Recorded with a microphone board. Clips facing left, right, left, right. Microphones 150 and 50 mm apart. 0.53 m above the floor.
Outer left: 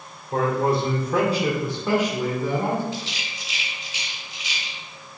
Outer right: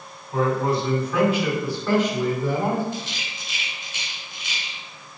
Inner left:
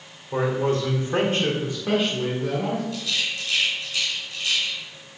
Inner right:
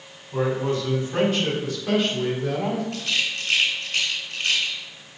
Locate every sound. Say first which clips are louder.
0.3 s a man speaking: outer left 1 dB, inner left 1 dB; 60° left (ahead or behind), 2.5 m; by 2.8 s 10° right (ahead or behind), 2.5 m
2.9 s a rattle: even, inner right 2 dB; 55° right (ahead or behind), 3 m